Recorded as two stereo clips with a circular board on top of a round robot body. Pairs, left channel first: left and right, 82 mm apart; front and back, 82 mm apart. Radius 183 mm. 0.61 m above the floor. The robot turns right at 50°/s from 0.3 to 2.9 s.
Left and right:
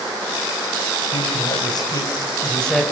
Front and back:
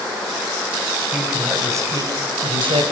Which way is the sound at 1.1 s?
95° left.